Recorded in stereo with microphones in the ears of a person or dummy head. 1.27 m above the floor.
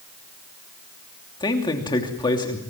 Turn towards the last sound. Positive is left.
turn(degrees=20)  # may be behind; listen again after turning